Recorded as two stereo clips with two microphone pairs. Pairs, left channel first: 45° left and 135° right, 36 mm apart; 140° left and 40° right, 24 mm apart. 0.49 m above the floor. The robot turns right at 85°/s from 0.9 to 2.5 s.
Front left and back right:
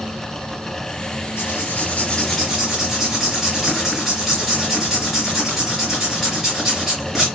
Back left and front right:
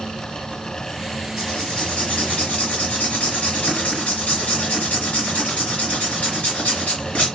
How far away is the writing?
About 2 m.